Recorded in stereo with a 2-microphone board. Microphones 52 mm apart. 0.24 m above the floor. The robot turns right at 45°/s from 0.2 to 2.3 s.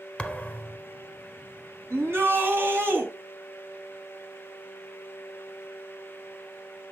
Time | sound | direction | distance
0.2 | a thud | 25° left (ahead or behind) | 1.0 m
1.9 | a shout | 50° right (ahead or behind) | 2 m